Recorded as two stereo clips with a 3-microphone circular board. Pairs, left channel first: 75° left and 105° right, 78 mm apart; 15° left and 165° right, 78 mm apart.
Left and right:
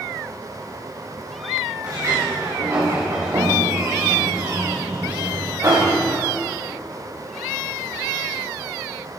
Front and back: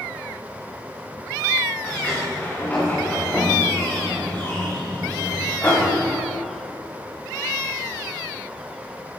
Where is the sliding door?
55° right, 7.5 m.